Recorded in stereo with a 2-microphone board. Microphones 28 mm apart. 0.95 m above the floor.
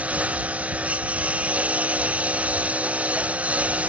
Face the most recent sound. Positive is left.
turn(degrees=-60)  # may be behind; listen again after turning